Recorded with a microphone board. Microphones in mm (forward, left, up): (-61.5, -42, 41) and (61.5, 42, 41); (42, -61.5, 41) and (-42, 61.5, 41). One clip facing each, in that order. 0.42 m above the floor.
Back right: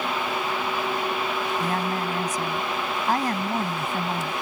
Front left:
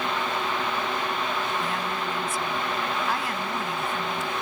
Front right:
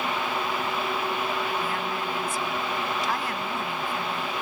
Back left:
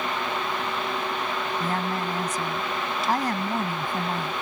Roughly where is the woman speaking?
Behind.